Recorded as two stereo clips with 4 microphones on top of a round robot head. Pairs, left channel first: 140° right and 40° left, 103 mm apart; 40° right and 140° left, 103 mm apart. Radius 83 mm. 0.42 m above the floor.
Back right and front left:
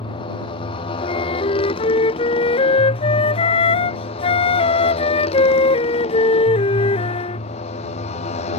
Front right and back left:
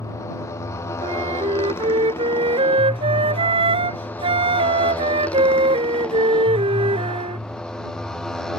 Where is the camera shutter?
No camera shutter in this recording.